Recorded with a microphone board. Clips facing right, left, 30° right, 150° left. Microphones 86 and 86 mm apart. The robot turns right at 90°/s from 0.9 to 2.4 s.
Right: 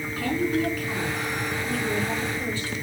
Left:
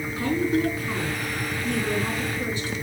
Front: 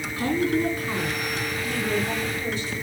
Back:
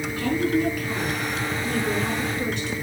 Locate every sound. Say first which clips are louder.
0.2 s a woman speaking: left 2 dB, even; 25° left, 4.5 m; by 2.7 s 160° left, 4.5 m